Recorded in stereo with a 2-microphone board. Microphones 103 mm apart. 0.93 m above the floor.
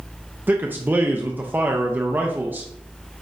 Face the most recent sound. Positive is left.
turn(degrees=-20)  # may be behind; listen again after turning